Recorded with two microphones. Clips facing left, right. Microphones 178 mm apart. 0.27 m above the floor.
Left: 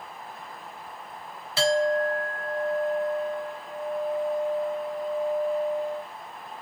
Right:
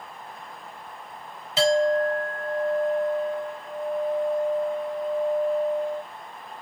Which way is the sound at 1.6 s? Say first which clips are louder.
Right 3 dB; 20° right (ahead or behind).